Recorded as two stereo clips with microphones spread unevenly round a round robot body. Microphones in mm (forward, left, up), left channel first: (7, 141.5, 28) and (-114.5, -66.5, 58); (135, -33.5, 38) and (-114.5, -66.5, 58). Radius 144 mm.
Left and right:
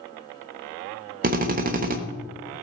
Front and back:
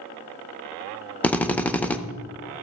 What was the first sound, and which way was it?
A drill, 70° right.